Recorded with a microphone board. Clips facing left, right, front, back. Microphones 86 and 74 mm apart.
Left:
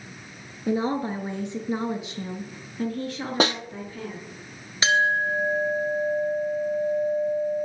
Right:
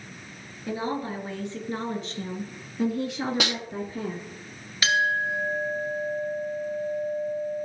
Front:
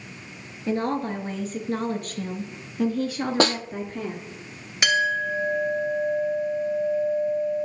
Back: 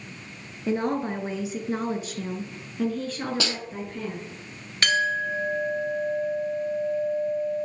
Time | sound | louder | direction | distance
0.7 | a woman speaking | left 5 dB, even | 120° left | 1.5 m
3.4 | a snare drum | left 6 dB, front 10 dB | 40° left | 0.5 m
4.8 | a clink | left 2 dB, front 1 dB | 65° left | 0.9 m